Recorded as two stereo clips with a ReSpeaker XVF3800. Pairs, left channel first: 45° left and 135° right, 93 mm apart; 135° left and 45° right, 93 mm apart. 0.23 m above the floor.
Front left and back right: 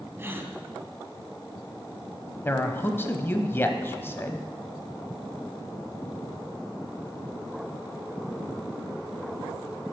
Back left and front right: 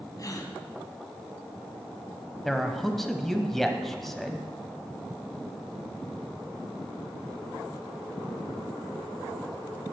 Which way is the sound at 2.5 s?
55° left.